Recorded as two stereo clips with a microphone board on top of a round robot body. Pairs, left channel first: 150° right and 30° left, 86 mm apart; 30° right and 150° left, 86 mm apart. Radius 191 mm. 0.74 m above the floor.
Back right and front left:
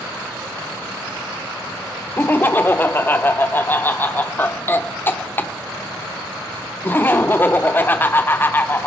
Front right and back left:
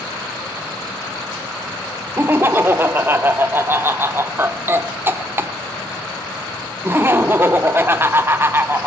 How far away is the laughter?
About 1.1 m.